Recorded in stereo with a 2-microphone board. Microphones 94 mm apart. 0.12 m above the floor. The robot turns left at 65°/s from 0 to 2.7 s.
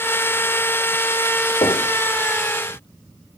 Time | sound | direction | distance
1.6 | knocking | 60° left (ahead or behind) | 4 m